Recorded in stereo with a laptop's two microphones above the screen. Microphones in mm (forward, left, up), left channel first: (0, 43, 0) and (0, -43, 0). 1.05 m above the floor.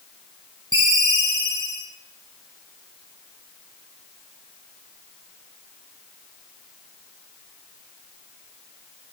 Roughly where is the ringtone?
Right.